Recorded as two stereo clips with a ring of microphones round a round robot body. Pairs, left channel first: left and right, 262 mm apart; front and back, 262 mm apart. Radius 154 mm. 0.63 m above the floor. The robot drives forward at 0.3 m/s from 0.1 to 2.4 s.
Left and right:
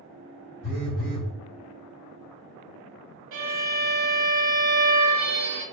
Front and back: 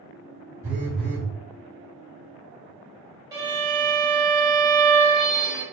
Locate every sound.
0.6 s a phone buzzing: 100° left, 1.6 m; by 1.3 s 110° left, 1.6 m
3.3 s a violin: 105° right, 1.0 m